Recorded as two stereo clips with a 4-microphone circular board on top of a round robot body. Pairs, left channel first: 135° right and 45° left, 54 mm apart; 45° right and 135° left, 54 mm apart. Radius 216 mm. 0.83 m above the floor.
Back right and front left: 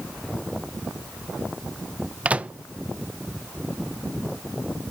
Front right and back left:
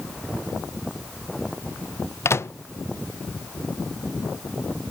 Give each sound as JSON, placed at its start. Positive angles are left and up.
{"t": 2.2, "sound": "a microwave", "azimuth_deg": -20, "distance_m": 0.6}